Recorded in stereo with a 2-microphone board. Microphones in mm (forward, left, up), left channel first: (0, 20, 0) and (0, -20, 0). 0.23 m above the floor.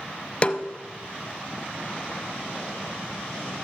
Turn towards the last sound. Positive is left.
turn(degrees=30)  # may be behind; listen again after turning